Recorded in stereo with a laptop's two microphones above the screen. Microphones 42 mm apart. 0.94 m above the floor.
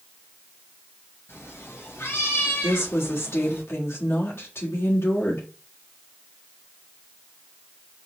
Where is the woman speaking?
75° left (ahead or behind), 1.7 m.